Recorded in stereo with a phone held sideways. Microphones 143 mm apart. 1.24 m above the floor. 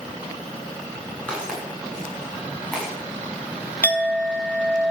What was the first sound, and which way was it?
Footsteps, 5° left (ahead or behind).